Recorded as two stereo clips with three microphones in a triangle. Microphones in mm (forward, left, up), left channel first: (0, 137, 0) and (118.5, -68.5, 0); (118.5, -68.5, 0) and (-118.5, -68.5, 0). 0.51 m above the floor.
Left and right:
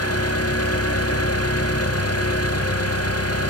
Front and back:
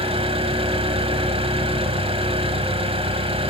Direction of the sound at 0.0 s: 115° left.